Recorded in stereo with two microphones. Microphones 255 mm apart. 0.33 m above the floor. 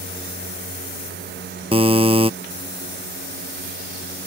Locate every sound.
1.7 s a buzzer: 20° right (ahead or behind)